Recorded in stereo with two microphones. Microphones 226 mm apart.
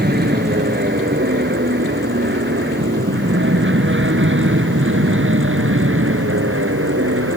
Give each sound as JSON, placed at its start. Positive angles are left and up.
{"t": 0.0, "sound": "an aircraft", "side_deg": -45}